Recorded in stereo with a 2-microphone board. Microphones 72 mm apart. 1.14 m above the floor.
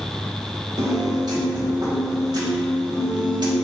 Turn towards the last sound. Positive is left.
turn(degrees=-70)  # may be behind; listen again after turning